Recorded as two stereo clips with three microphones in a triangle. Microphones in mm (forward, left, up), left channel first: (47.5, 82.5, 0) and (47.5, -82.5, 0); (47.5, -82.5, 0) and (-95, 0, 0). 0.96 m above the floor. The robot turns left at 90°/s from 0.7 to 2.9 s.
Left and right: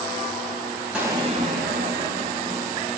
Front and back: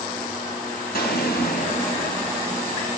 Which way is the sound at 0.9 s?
5° right.